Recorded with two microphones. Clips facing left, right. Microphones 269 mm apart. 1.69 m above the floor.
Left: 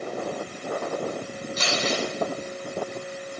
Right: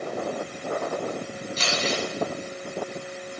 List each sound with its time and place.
1.6 s crumpling: 60° left (ahead or behind), 4 m